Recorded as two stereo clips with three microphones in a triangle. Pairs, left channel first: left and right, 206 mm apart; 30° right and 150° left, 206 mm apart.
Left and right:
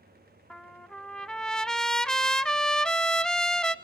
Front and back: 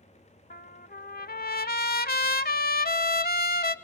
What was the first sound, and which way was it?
A trumpet, 5° left.